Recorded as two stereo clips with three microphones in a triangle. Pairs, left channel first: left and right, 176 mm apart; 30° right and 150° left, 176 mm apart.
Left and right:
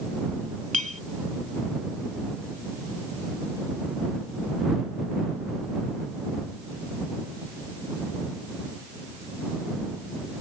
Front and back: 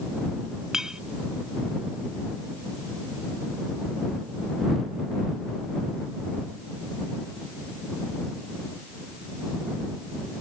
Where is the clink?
125° right.